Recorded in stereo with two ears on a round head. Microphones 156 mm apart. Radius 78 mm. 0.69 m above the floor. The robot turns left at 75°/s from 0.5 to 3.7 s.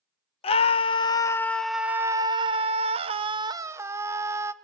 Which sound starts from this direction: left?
A scream, at 0.4 s.